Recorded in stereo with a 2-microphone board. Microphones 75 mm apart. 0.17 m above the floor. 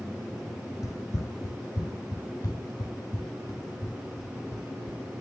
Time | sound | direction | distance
0.8 | running footsteps | 55° left (ahead or behind) | 0.5 m